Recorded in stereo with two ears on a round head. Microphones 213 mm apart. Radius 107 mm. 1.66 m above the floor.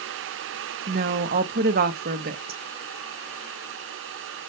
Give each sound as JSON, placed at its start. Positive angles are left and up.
{"t": 0.9, "sound": "a woman speaking", "side_deg": -40, "distance_m": 0.5}